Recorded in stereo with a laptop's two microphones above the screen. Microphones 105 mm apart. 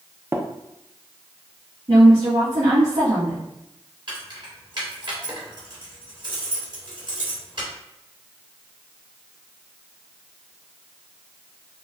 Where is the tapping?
25° right (ahead or behind), 0.6 m.